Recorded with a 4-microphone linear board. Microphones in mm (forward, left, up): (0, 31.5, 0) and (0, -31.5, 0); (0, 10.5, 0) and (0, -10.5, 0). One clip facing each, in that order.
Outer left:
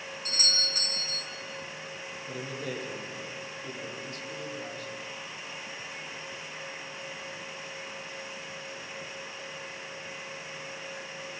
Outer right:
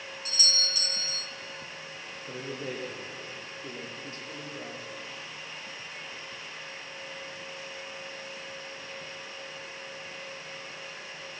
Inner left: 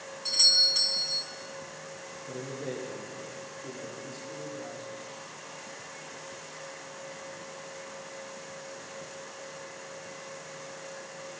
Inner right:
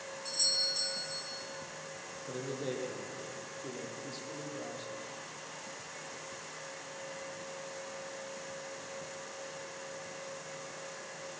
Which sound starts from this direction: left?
A doorbell, at 0.2 s.